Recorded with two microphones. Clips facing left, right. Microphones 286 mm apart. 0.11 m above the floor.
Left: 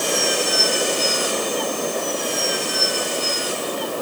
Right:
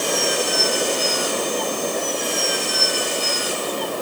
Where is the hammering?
I don't hear hammering.